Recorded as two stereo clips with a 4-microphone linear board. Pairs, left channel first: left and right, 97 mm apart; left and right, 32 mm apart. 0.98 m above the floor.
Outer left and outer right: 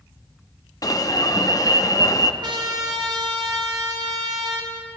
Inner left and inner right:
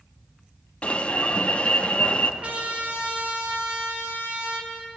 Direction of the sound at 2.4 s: 45° right (ahead or behind).